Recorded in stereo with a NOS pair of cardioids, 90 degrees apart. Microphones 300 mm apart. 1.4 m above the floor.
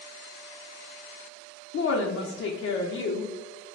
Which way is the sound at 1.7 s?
50° left.